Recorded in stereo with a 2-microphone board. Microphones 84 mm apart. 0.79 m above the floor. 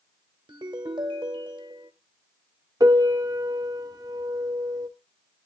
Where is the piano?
45° right (ahead or behind), 0.6 m.